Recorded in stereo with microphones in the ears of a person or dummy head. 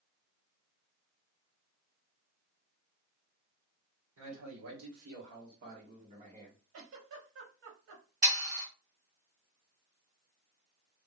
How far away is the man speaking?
About 1.5 m.